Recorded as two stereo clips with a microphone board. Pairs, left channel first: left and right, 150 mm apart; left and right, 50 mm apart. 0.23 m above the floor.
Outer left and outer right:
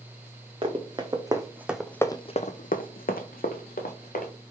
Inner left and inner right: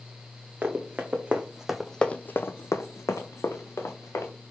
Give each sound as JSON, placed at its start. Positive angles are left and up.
{"t": 0.6, "sound": "running footsteps", "side_deg": -35, "distance_m": 1.2}